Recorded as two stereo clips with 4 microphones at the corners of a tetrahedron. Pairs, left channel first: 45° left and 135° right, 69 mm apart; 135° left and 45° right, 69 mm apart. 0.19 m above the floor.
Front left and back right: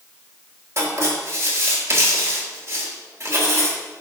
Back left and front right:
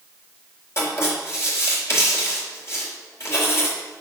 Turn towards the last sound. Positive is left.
turn(degrees=180)